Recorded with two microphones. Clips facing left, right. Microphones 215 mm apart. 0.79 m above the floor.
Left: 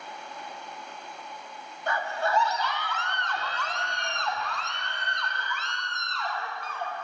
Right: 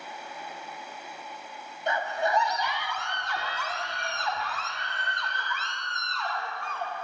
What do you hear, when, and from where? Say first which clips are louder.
1.9 s a scream: right 1 dB; 20° right (ahead or behind), 1.5 m; by 6.9 s centre (ahead or behind), 3.5 m